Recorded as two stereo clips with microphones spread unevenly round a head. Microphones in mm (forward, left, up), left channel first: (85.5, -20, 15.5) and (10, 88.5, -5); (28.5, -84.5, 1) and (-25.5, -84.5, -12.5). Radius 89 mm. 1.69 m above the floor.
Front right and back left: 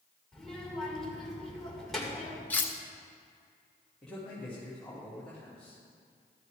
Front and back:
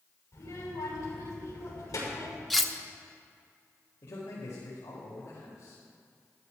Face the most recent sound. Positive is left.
turn(degrees=30)